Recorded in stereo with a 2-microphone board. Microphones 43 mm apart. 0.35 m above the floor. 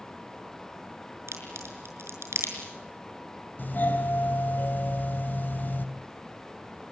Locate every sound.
1.3 s a crack: 80° right, 5.5 m
3.6 s a doorbell: 45° left (ahead or behind), 2.5 m